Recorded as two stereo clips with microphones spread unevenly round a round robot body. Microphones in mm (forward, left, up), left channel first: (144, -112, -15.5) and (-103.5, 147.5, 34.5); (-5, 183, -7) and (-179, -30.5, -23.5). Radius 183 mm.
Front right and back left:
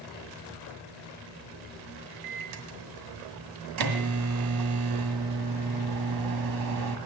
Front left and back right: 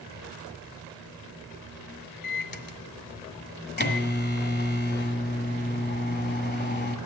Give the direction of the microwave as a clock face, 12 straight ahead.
9 o'clock.